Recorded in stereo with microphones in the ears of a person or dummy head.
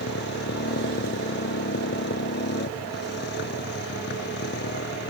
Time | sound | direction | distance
0.0 | a motorcycle | 55° left (ahead or behind) | ?